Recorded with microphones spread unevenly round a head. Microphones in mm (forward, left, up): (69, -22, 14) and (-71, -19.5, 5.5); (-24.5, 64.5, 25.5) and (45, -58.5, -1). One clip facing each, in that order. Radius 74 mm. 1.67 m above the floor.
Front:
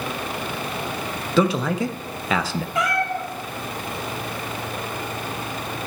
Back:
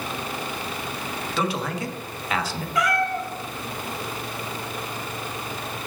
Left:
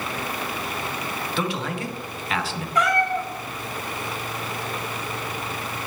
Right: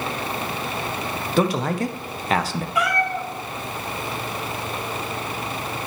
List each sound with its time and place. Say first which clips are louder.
1.4 s a man speaking: front 7 dB, right 8 dB; 5° right, 0.6 m
2.8 s a cat meowing: back 1 dB, left 2 dB; 30° left, 1.0 m